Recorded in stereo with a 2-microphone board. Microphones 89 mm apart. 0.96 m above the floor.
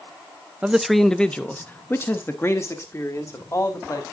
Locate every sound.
0.6 s a man speaking: 10° right (ahead or behind), 0.5 m; by 4.0 s 35° left (ahead or behind), 2 m